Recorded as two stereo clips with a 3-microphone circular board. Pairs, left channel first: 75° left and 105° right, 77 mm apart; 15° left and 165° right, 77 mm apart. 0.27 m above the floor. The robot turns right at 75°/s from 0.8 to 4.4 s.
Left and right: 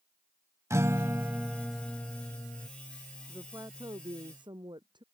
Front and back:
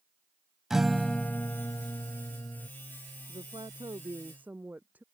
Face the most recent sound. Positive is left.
turn(degrees=-95)